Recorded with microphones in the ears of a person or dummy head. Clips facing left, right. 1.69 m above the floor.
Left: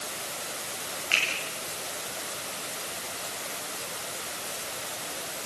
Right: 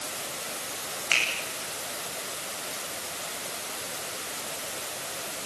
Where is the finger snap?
60° right (ahead or behind), 10 m.